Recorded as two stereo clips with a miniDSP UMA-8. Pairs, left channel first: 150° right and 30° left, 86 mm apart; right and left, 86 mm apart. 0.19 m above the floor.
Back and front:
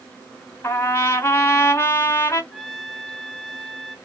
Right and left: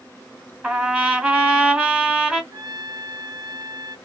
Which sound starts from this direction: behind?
A trumpet, at 0.6 s.